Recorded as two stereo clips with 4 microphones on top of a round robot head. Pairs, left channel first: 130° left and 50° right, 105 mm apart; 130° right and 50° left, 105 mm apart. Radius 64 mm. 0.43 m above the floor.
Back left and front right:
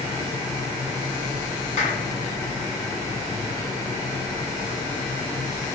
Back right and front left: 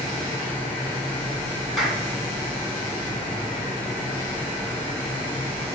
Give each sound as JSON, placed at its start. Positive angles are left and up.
{"t": 1.8, "sound": "a clap", "azimuth_deg": 135, "distance_m": 3.0}